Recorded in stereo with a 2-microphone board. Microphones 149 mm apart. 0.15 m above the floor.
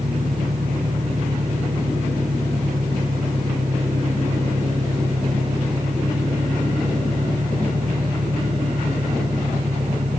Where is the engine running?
70° right (ahead or behind).